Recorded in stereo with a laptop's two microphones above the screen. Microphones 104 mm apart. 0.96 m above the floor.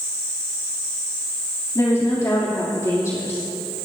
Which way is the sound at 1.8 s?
35° left (ahead or behind).